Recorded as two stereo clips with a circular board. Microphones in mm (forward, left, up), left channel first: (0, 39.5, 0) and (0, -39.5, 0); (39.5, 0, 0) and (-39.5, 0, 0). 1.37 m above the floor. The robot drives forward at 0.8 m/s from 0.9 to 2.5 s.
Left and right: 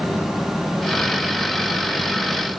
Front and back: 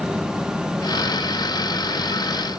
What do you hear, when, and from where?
Only background noise.